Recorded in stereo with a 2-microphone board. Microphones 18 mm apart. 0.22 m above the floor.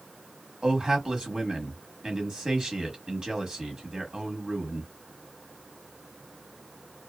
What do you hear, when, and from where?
0.6 s a man speaking: 35° right (ahead or behind), 1.3 m